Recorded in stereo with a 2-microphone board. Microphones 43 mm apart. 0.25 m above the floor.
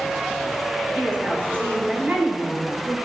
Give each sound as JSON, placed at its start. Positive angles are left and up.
{"t": 0.9, "sound": "a woman speaking", "side_deg": -40, "distance_m": 4.0}